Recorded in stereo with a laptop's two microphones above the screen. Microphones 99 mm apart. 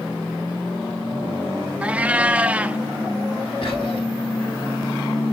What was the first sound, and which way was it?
A cat meowing, 15° right (ahead or behind).